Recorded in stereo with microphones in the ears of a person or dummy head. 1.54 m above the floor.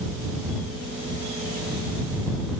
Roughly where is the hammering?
No hammering in this recording.